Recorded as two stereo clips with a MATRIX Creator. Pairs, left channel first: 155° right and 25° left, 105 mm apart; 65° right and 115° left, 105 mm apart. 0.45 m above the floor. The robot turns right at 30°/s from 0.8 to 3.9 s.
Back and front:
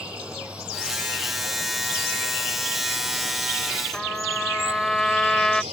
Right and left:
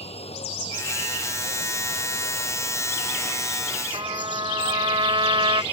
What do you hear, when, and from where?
0.0 s running water: 55° right; by 5.7 s 35° left
3.9 s a trumpet: 120° left